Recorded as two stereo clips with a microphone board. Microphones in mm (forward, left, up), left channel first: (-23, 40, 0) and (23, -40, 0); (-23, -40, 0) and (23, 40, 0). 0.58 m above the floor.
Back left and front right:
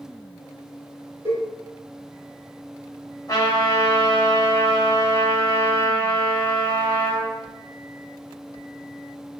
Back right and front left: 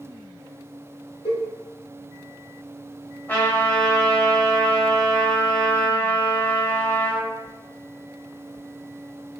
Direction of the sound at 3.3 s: 170° left.